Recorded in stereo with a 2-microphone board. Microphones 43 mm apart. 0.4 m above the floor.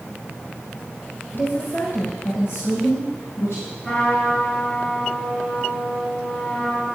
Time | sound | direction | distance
1.3 | a woman speaking | 55° left (ahead or behind) | 1.7 m
3.8 | a trumpet | 15° left (ahead or behind) | 3.5 m